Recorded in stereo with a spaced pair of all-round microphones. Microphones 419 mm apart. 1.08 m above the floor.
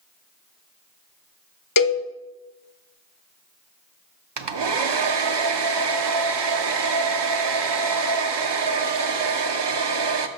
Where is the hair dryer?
85° right, 0.6 m.